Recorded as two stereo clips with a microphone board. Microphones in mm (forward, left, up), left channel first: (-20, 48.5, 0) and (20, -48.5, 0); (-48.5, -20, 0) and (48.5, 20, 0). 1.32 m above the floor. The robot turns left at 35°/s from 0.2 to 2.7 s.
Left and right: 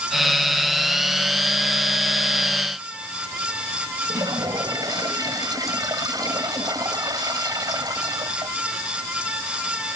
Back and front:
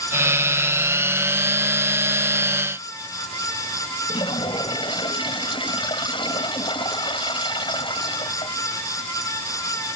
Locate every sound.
4.1 s a toilet flushing: 120° right